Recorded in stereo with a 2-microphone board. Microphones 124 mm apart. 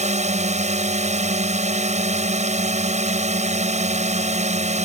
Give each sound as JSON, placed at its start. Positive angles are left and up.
{"t": 0.0, "sound": "a drone", "side_deg": -65}